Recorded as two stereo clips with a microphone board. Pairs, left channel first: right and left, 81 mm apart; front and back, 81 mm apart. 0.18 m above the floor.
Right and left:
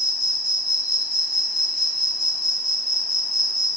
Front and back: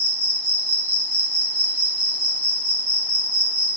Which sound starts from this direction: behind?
An insect, at 0.0 s.